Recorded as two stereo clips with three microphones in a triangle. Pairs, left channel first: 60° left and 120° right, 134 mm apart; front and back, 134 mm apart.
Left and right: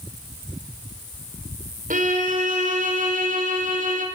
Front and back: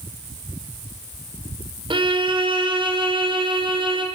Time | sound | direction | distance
1.9 | a violin | 130° right | 3 m